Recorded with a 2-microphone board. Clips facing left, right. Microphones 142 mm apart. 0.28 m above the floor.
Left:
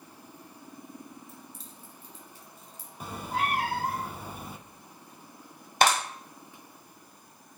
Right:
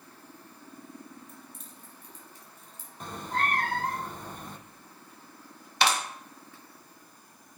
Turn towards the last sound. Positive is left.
turn(degrees=50)  # may be behind; listen again after turning